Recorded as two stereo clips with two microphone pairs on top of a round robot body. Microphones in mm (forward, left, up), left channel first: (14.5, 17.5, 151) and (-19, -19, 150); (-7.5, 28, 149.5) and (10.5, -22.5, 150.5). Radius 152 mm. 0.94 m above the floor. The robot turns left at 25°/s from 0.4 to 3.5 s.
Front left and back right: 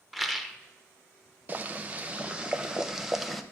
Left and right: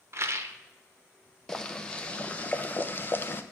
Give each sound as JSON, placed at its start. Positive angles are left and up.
{"t": 0.1, "sound": "a rattle", "azimuth_deg": -45, "distance_m": 1.0}
{"t": 1.5, "sound": "boiling", "azimuth_deg": -170, "distance_m": 0.9}